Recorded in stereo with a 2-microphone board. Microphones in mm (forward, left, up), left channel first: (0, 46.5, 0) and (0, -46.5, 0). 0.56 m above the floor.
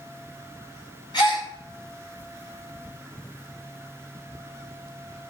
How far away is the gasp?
About 4.5 m.